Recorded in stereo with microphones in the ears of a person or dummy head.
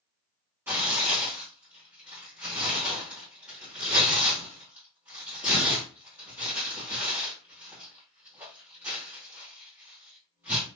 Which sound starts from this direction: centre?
Tearing paper, at 0.7 s.